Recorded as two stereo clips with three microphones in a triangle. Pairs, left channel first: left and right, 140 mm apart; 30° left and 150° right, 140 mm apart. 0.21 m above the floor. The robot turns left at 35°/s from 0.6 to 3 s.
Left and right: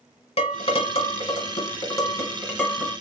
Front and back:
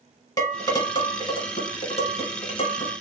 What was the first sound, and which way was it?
Dishes clattering, 85° left.